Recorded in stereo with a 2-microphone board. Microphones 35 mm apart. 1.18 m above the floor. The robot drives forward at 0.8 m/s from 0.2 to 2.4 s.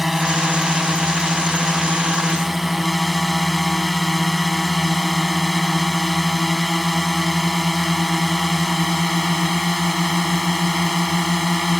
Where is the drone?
5° right (ahead or behind).